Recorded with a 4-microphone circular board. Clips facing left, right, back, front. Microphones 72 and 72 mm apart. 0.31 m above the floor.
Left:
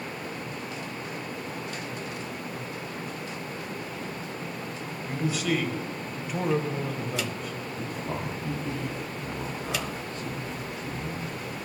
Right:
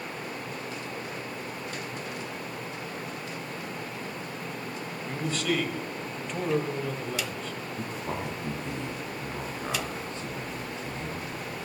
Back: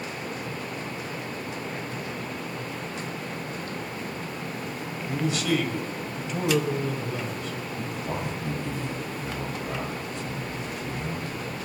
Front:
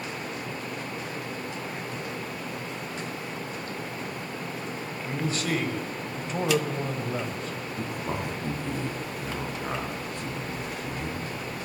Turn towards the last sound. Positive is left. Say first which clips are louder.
# even, front 1 dB
turn(degrees=-30)